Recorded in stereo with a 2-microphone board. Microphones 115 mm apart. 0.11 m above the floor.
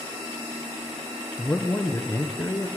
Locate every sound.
1.4 s a man speaking: 15° left (ahead or behind), 1.2 m; by 2.7 s 30° left (ahead or behind), 1.3 m